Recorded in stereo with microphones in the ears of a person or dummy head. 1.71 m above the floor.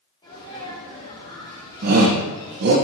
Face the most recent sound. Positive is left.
turn(degrees=-55)  # may be behind; listen again after turning